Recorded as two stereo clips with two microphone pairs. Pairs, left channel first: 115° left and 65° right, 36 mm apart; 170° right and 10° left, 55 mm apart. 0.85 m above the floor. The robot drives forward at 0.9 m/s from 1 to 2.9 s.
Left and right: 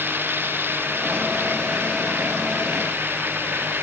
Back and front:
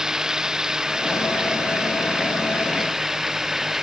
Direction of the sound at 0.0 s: 70° right.